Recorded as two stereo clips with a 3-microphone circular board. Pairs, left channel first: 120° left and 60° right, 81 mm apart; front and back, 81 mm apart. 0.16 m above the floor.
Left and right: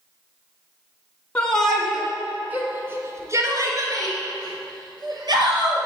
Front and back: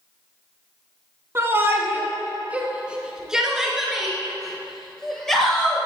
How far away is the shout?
About 1.6 m.